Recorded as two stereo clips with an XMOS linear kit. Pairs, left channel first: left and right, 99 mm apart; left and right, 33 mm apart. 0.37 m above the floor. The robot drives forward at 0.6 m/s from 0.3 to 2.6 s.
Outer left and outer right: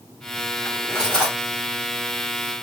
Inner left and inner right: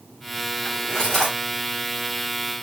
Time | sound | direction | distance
0.7 | cutlery clinking | 10° left (ahead or behind) | 3 m